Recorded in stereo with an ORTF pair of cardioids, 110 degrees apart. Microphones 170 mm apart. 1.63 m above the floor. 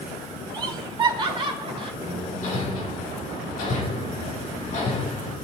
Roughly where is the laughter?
Ahead right.